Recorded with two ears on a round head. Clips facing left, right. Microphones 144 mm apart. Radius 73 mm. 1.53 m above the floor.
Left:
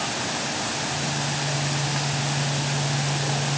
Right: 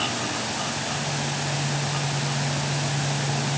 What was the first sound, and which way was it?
Only background noise.